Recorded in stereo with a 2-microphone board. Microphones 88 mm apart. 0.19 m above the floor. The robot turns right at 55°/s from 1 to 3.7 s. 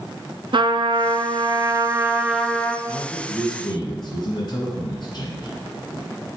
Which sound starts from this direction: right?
A trumpet, at 0.5 s.